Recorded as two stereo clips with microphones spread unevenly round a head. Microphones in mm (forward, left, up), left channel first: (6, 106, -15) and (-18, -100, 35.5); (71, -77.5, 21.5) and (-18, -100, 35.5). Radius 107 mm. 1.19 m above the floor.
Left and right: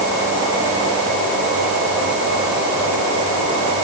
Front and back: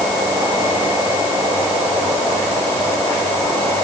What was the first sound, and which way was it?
Only background noise.